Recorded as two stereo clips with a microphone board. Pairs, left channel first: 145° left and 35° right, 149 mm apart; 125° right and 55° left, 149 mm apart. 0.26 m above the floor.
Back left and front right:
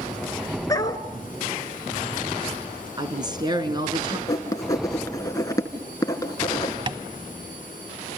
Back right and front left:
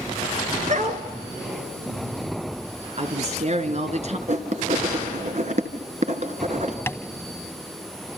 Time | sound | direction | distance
0.7 | a dog barking | 80° left | 1.4 m
3.0 | a woman speaking | 25° left | 3 m
4.3 | writing | 80° left | 2 m
6.9 | tapping | 60° right | 0.9 m